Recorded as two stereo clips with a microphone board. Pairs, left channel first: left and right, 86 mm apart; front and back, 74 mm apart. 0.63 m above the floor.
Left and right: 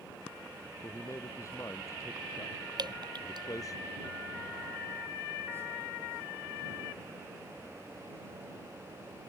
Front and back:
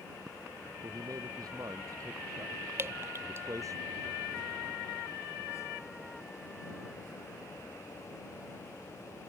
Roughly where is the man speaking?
Behind left.